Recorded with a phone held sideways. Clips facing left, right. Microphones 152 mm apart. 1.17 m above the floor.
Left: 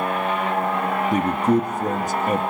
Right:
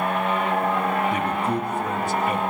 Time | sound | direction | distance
1.1 | a man speaking | 40° left (ahead or behind) | 0.8 m